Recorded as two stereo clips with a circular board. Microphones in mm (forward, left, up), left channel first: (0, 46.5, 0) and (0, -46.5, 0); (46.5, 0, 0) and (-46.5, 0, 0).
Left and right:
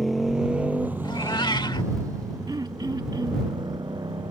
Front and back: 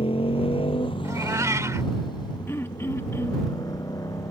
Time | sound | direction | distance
0.0 | a motorcycle | straight ahead | ?
1.0 | a cat meowing | 125° left | ?
2.5 | throat clearing | 55° right | ?